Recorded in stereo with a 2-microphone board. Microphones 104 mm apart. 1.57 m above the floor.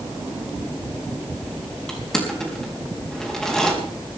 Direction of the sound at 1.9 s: 5° left (ahead or behind).